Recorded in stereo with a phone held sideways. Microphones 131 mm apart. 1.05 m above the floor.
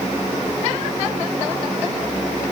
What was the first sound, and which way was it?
Only background noise.